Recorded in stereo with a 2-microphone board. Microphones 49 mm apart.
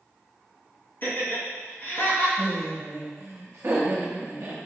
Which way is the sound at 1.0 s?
40° left (ahead or behind).